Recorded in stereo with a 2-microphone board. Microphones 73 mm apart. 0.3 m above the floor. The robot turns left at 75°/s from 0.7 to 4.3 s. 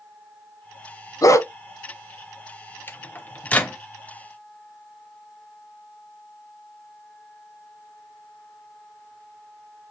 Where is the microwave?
30° left (ahead or behind), 0.7 m; by 3.8 s 15° left (ahead or behind), 0.7 m.